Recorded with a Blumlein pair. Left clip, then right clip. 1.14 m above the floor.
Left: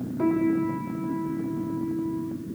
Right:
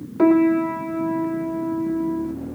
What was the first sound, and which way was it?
A piano, 30° right.